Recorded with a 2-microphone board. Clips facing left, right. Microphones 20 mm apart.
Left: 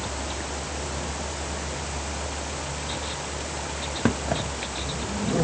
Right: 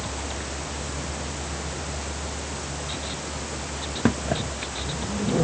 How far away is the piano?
I don't hear a piano.